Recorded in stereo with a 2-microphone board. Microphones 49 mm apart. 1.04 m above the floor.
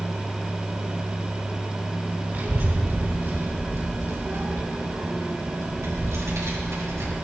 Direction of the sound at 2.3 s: 35° right (ahead or behind).